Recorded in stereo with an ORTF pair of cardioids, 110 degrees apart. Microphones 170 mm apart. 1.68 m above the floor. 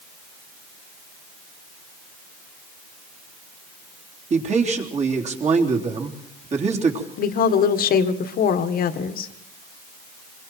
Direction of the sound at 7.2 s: 60° left.